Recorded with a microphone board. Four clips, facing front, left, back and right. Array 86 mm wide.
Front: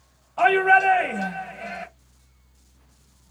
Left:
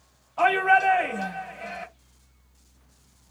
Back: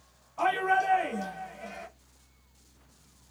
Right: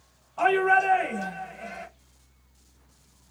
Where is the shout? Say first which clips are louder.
Left 1 dB, front 9 dB; 15° left, 1.4 m.